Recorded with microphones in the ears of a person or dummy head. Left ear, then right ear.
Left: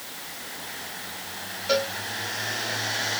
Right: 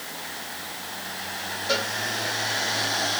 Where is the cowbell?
20° left (ahead or behind), 2 m.